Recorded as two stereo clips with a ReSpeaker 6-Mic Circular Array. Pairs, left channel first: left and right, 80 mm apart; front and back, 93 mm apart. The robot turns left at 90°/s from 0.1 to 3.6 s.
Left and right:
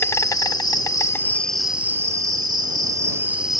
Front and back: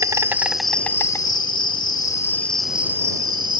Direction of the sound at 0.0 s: 135° left.